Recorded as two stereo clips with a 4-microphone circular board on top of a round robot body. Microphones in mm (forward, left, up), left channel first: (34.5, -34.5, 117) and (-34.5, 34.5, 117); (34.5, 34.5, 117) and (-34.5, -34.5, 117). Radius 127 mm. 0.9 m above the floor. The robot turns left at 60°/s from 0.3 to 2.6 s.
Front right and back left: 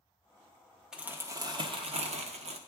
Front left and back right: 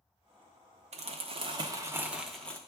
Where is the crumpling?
140° right, 0.9 m; by 2.6 s 120° left, 0.9 m.